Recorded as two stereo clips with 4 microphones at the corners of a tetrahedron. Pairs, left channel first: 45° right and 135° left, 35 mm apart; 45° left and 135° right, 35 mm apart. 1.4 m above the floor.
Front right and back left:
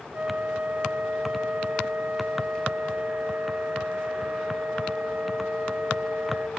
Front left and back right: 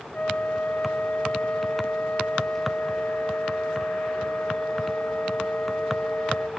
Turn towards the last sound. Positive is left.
turn(degrees=95)